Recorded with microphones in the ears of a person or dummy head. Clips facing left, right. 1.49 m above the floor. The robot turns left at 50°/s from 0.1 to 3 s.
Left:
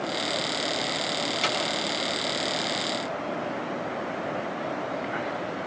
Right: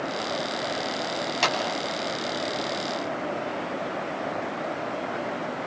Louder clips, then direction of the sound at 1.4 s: Right 2 dB; 90° right.